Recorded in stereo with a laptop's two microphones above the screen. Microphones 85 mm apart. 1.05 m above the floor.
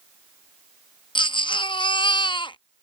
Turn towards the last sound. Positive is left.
turn(degrees=70)  # may be behind; listen again after turning